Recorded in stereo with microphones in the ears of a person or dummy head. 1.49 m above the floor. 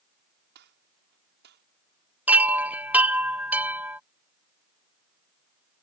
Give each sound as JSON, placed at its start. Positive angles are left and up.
{"t": 0.6, "sound": "a gunshot", "side_deg": -60}
{"t": 2.3, "sound": "a chime", "side_deg": -10}